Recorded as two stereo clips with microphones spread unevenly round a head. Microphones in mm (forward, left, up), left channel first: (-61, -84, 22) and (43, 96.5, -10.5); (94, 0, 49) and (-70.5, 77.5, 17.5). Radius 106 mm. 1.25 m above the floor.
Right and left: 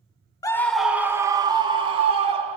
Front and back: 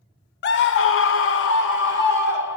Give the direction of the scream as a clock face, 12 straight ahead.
1 o'clock.